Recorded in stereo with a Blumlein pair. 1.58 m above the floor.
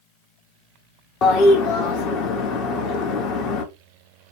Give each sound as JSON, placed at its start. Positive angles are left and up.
{"t": 1.2, "sound": "a toilet flushing", "azimuth_deg": 35, "distance_m": 0.7}